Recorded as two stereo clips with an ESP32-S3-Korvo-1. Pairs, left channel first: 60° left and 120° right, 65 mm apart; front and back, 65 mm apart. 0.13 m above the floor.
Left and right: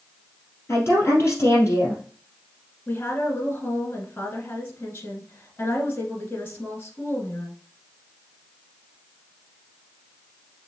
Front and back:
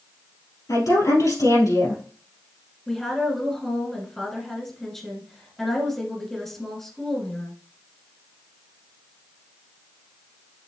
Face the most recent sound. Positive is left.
turn(degrees=75)